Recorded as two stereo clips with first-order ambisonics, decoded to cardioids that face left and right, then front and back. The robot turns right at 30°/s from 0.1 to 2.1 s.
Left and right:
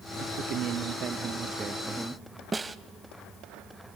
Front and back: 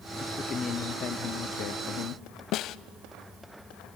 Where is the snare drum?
15° right, 0.5 m.